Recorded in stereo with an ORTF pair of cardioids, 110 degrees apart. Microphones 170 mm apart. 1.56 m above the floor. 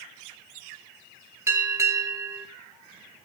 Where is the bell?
15° right, 1.6 m.